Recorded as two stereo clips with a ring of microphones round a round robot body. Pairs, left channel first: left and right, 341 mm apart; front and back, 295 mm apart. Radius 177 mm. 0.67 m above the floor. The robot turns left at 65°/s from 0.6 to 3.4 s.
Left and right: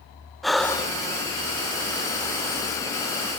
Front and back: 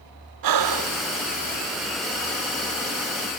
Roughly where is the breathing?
Behind.